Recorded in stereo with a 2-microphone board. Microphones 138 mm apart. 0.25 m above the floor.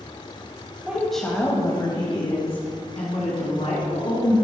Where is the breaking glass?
I don't hear breaking glass.